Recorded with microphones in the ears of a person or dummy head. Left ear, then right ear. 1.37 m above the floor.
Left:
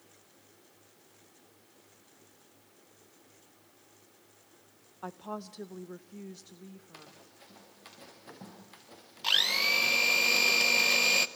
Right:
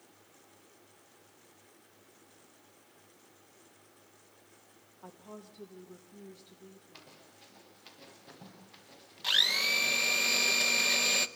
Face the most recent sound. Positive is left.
turn(degrees=5)  # may be behind; listen again after turning